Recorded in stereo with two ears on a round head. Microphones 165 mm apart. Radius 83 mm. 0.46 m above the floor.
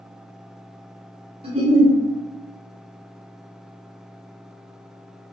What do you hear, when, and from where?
1.4 s a giggle: 30° right (ahead or behind), 1.3 m